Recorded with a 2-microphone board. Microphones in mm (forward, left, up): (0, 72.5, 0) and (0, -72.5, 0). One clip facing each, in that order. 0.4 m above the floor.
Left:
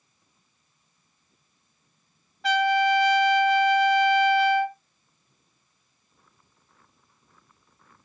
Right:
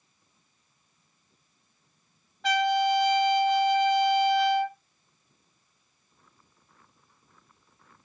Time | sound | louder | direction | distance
2.4 | a trumpet | left 2 dB | centre (ahead or behind) | 0.8 m